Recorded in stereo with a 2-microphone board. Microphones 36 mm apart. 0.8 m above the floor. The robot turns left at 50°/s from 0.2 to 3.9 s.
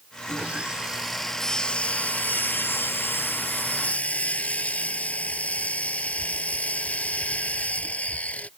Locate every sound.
0.3 s sawing: 140° right; by 8.5 s 40° left